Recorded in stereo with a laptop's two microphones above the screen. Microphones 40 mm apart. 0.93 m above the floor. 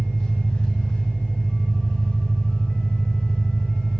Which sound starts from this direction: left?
An engine running, at 0.0 s.